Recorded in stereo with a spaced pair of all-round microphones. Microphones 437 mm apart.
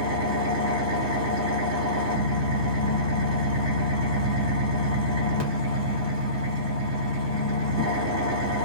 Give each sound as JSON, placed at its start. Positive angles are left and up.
{"t": 0.0, "sound": "an engine running", "side_deg": -35, "distance_m": 2.0}